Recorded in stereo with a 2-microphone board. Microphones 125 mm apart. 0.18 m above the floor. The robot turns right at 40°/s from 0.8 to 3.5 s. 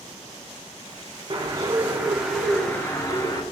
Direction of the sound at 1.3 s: 45° right.